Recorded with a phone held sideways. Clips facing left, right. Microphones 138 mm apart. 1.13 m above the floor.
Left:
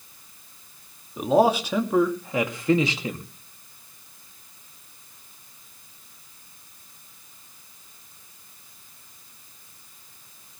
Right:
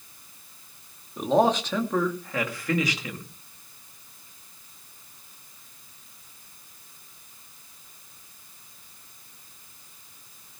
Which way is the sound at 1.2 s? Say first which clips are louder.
Left 2 dB; 5° left (ahead or behind).